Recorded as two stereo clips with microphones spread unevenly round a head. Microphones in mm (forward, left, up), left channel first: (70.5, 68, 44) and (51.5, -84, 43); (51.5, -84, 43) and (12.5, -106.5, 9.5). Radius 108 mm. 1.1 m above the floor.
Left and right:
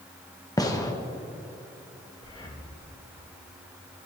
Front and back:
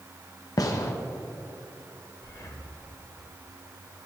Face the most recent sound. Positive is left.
turn(degrees=20)